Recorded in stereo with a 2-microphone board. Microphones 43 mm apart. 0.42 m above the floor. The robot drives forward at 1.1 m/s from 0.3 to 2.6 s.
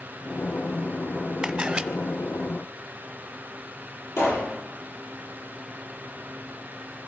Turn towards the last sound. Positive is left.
turn(degrees=80)